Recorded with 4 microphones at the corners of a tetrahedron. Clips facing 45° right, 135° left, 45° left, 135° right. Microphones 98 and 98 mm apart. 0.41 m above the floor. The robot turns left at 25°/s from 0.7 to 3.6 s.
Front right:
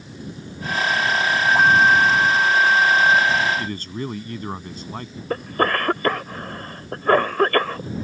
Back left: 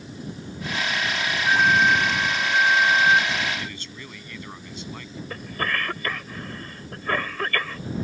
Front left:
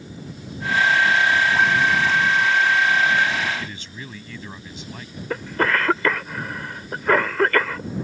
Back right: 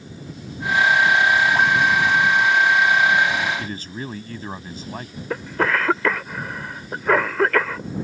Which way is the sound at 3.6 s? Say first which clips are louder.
Front right 9 dB, back right 4 dB; 85° right.